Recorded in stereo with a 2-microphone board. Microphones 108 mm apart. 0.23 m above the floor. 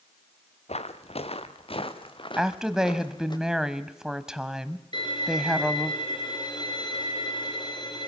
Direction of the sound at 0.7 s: 75° left (ahead or behind).